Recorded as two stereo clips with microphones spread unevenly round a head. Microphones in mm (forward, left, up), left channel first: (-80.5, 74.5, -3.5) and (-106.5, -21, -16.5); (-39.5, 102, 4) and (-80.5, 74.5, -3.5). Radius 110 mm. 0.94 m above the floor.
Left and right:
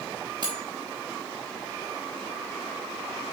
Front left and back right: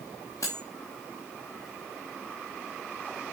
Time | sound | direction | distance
0.4 | cutlery clinking | 35° right | 0.7 m